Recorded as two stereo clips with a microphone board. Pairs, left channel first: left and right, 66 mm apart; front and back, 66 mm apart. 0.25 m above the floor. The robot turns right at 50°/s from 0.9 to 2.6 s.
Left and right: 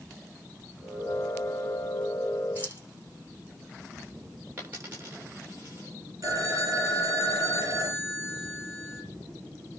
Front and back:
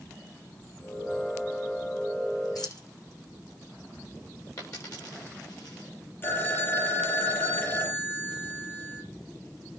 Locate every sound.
2.5 s keys jangling: 30° right, 9 m; by 2.9 s 25° right, 9 m
4.6 s a dropped coin: 30° right, 8 m
6.2 s a phone ringing: 55° right, 4.5 m